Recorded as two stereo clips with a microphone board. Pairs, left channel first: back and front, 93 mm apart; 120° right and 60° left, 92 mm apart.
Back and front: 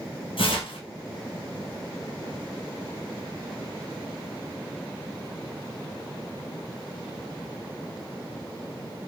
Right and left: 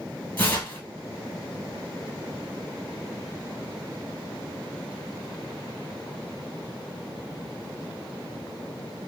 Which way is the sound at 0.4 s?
170° left.